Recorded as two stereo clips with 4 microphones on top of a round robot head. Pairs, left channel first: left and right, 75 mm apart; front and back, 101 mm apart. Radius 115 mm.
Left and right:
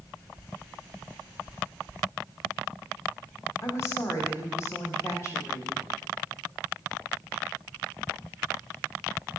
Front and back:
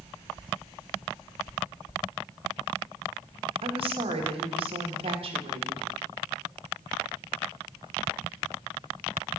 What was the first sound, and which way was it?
A woman speaking, 145° left.